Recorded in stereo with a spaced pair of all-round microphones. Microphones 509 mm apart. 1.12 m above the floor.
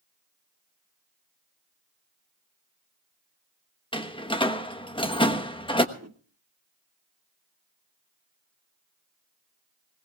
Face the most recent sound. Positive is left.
turn(degrees=-30)  # may be behind; listen again after turning